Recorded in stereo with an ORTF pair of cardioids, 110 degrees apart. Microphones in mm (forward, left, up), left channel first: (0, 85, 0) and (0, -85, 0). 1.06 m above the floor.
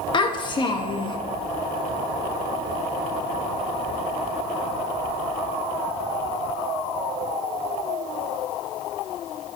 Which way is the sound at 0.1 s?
30° left.